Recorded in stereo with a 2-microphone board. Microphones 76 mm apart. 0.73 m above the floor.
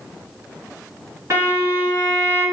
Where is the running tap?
No running tap in this recording.